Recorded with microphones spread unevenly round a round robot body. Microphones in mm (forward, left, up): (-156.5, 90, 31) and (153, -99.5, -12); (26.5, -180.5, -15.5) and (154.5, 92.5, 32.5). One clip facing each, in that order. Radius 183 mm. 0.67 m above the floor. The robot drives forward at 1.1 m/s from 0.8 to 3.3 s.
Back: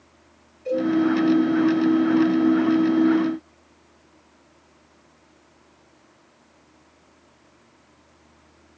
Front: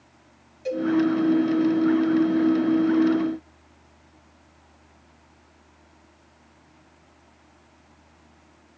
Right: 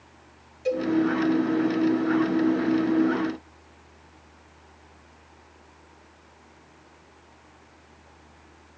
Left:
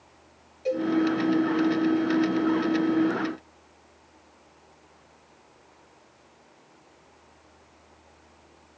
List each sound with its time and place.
0.7 s a cowbell: 55° right, 4 m